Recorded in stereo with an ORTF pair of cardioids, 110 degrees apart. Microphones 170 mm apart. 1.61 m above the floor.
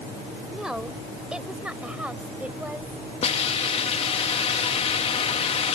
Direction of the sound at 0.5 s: 5° right.